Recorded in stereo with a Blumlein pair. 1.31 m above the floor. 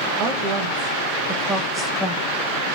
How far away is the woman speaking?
About 2.5 m.